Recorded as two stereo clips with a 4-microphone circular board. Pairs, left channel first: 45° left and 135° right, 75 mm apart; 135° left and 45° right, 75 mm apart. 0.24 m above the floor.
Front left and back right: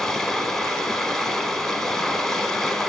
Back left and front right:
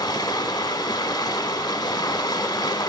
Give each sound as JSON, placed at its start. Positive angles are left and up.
{"t": 0.0, "sound": "running water", "azimuth_deg": 130, "distance_m": 0.7}